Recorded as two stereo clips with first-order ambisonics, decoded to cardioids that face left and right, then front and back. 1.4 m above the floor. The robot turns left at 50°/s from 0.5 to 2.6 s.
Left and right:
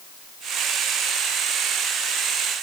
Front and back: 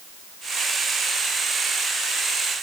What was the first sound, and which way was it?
Only background noise.